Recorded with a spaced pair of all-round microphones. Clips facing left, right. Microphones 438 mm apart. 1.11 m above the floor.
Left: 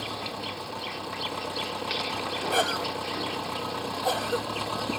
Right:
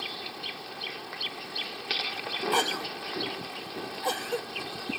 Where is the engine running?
85° left.